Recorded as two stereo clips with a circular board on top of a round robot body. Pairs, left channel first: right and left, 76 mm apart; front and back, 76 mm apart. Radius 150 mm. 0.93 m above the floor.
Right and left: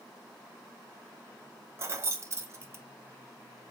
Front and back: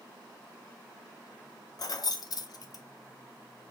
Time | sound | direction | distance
1.8 | keys jangling | 35° left | 0.6 m